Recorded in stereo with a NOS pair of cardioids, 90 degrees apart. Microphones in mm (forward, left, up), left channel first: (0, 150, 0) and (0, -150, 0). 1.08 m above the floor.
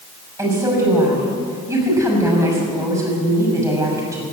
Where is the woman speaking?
10° right, 6.5 m.